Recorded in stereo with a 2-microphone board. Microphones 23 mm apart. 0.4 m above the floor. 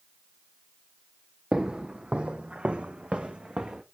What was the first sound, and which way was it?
Footsteps, 40° right (ahead or behind).